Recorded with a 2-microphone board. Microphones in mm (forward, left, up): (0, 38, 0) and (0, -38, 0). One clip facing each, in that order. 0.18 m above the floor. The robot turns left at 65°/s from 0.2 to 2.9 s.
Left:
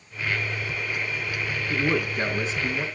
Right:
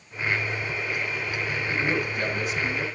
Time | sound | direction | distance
1.7 | a man speaking | 90° left | 2.5 m